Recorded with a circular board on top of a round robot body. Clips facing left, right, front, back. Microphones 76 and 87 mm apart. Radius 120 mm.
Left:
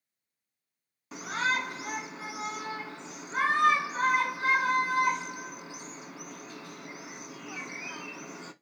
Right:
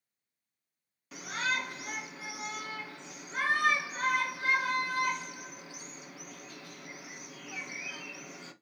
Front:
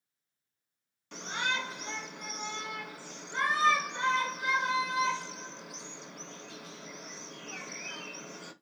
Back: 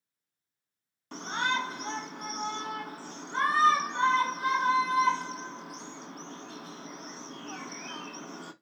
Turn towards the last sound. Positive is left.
turn(degrees=150)